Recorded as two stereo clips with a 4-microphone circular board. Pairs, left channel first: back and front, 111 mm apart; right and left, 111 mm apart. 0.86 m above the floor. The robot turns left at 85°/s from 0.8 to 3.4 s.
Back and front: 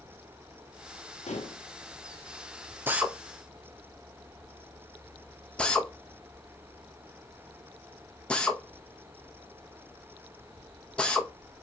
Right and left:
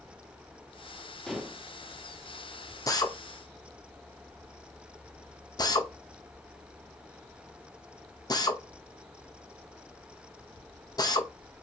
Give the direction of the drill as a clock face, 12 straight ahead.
2 o'clock.